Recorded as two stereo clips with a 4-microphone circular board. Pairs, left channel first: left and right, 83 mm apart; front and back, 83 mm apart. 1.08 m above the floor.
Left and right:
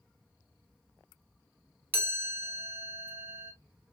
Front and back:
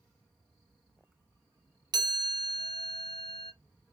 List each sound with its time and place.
1.9 s a chime: 150° right, 1.7 m